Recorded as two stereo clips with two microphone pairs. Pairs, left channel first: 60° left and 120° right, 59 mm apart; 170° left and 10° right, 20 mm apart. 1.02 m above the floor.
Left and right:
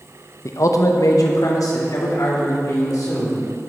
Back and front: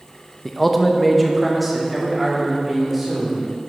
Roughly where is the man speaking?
Left.